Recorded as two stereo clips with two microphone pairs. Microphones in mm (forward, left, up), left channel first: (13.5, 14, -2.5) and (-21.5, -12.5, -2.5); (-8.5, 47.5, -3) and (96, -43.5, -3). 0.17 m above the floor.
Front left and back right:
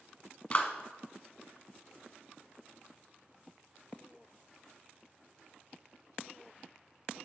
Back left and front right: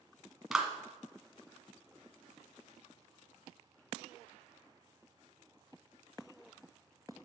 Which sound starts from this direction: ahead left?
A clap, at 0.5 s.